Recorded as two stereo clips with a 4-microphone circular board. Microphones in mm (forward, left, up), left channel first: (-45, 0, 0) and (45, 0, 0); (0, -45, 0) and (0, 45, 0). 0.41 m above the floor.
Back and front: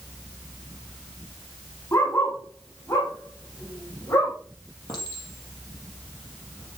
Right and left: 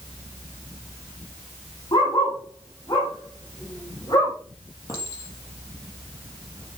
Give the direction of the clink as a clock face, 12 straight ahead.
5 o'clock.